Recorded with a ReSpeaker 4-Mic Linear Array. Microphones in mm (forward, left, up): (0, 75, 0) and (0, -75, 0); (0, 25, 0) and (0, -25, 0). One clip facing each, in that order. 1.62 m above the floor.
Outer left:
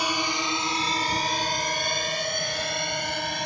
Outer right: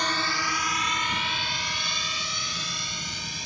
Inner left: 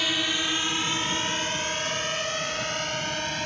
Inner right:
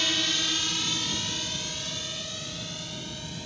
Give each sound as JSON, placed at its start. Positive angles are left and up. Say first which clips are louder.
{"t": 0.0, "sound": "a drone", "louder": "outer left 2 dB, inner left 2 dB", "side_deg": 10}